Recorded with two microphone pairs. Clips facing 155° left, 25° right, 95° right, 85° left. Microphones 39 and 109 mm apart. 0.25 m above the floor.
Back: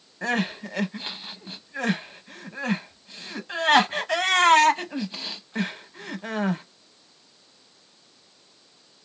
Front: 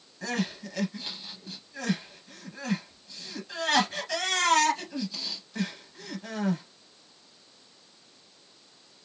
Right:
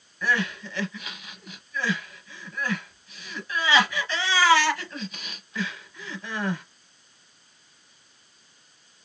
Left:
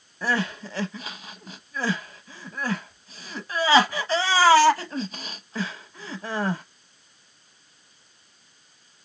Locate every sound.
0.2 s crying: 125° left, 0.6 m